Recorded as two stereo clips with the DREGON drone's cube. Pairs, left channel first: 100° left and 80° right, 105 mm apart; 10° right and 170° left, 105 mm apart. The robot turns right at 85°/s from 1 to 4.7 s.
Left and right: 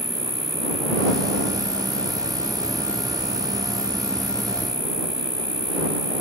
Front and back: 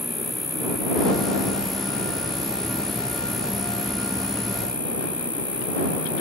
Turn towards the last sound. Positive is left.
turn(degrees=-150)